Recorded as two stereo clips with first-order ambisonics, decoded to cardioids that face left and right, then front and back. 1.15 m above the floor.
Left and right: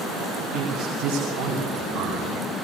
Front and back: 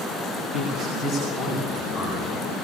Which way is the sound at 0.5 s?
100° right.